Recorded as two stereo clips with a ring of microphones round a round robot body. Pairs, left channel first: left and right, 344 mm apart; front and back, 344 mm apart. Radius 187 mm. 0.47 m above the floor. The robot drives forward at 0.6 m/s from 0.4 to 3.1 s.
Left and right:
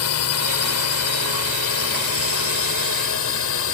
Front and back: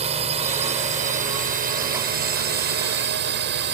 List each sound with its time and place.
0.0 s a drone: 110° left; by 3.7 s 125° left